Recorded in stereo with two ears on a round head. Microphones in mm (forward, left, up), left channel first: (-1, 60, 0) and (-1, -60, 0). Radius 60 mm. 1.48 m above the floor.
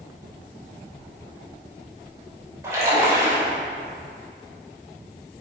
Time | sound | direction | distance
2.6 | a splash | 20° right (ahead or behind) | 2.5 m